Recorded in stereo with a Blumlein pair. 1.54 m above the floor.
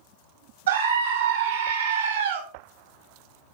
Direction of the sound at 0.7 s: 65° right.